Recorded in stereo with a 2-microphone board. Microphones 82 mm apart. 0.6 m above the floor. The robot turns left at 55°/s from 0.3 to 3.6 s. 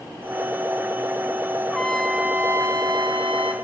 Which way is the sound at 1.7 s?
15° left.